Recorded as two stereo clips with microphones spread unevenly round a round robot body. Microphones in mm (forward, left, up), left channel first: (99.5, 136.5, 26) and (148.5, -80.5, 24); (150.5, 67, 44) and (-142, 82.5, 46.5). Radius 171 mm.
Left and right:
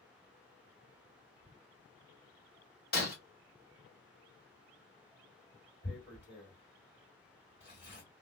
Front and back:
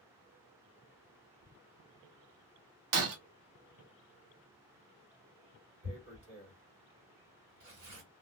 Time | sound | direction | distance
2.9 | breaking glass | 165° left | 1.0 m
5.8 | tearing paper | 170° left | 1.9 m